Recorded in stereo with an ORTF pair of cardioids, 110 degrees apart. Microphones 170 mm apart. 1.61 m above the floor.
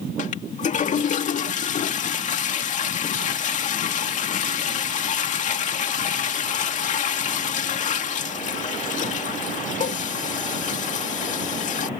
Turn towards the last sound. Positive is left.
turn(degrees=50)